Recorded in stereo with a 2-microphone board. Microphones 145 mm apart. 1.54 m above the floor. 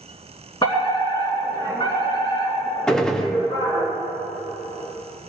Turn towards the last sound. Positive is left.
turn(degrees=5)  # may be behind; listen again after turning